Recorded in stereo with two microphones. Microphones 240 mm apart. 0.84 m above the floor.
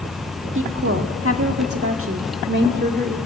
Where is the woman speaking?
55° right (ahead or behind), 1.7 m; by 3.2 s 35° right (ahead or behind), 2 m.